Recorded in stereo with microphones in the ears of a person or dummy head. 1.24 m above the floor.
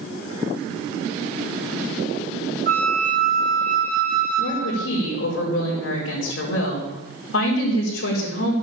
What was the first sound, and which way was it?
A flute, 40° right (ahead or behind).